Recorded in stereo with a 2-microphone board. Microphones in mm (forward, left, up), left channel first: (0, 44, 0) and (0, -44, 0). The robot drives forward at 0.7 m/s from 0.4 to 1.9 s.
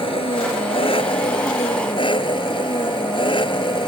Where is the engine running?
75° left (ahead or behind); by 3.9 s 65° left (ahead or behind).